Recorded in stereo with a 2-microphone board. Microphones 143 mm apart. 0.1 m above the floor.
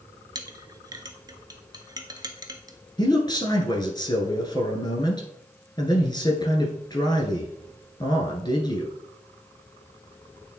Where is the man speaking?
30° left (ahead or behind), 1.4 m.